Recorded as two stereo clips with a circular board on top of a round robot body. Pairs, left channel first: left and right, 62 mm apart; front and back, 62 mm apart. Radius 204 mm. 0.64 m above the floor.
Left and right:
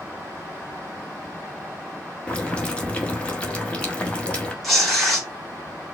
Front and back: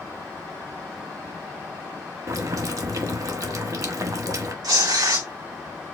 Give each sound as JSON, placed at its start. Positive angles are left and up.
{"t": 2.3, "sound": "boiling", "azimuth_deg": 160, "distance_m": 1.4}
{"t": 4.6, "sound": "tearing paper", "azimuth_deg": 180, "distance_m": 2.0}